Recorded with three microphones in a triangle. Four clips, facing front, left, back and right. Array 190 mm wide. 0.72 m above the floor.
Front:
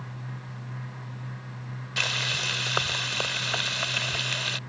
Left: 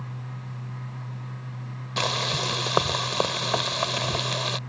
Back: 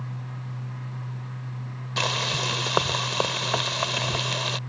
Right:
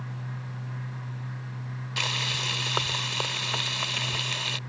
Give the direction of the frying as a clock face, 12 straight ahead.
8 o'clock.